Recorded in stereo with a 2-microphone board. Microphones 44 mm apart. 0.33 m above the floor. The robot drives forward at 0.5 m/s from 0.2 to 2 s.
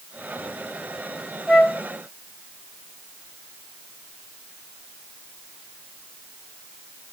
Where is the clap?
I don't hear a clap.